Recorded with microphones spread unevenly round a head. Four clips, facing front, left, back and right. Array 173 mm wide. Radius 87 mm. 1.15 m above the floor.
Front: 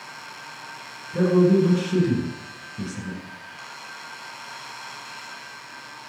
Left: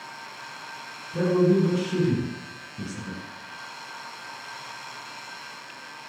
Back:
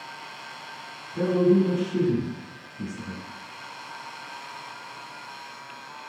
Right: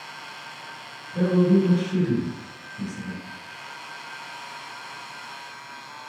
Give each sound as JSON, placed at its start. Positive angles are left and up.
{"t": 1.1, "sound": "a man speaking", "azimuth_deg": 15, "distance_m": 7.0}